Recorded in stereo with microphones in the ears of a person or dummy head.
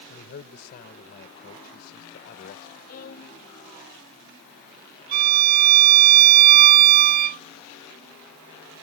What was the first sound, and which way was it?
A man speaking, 55° left (ahead or behind).